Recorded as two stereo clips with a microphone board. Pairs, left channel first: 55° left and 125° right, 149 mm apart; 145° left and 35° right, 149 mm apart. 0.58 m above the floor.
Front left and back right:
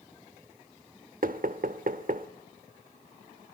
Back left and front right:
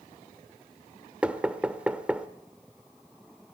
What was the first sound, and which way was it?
Knocking, 115° right.